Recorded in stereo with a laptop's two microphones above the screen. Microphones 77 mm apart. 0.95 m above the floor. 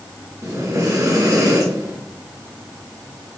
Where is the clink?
I don't hear a clink.